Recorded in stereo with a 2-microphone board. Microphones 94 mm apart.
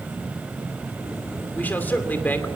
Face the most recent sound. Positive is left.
turn(degrees=20)  # may be behind; listen again after turning